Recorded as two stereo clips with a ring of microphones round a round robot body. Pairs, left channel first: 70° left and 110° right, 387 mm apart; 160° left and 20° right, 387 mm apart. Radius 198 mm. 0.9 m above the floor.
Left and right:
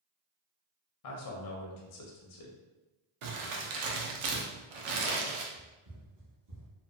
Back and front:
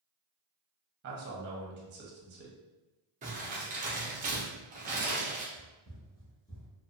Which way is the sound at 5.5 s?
100° right.